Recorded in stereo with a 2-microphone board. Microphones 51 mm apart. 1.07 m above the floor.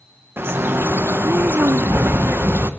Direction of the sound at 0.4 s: 50° right (ahead or behind).